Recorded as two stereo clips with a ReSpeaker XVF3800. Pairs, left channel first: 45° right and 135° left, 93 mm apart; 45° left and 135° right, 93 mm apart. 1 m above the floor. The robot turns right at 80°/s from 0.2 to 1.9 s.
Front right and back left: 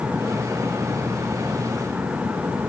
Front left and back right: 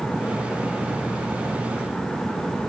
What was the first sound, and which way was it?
Only background noise.